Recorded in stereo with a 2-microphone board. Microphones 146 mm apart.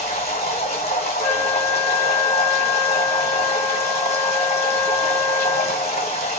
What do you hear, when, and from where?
0.0 s running water: 50° left (ahead or behind), 1.1 m
1.2 s a flute: 20° left (ahead or behind), 1.0 m